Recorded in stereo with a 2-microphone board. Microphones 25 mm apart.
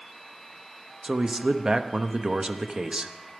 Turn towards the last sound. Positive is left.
turn(degrees=-35)  # may be behind; listen again after turning